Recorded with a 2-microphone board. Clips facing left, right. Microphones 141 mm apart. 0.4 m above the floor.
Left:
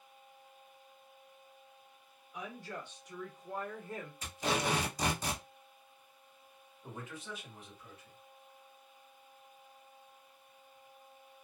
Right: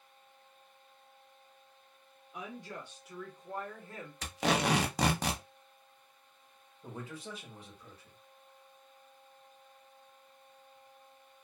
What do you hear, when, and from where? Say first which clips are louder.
2.3 s a woman speaking: even; 25° right (ahead or behind), 1.3 m; by 4.1 s 20° left (ahead or behind), 1.3 m
4.2 s tape being pulled: right 4 dB; 85° right, 0.6 m
6.8 s a man speaking: right 2 dB; 35° right (ahead or behind), 1.3 m